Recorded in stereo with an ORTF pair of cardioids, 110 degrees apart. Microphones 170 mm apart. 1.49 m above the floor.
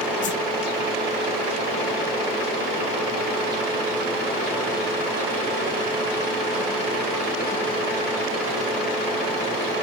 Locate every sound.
0.2 s a whoosh: 50° left, 1.0 m